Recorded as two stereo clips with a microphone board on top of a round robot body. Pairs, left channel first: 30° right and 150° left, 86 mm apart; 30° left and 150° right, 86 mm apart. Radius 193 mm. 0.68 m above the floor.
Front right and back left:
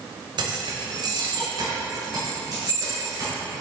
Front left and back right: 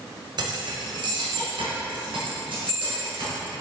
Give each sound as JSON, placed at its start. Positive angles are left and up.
{"t": 0.4, "sound": "keys jangling", "azimuth_deg": 180, "distance_m": 1.0}